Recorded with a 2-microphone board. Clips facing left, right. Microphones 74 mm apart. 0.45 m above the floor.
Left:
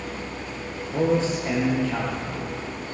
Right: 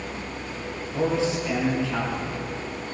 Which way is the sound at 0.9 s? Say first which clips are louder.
Left 2 dB; 45° left (ahead or behind).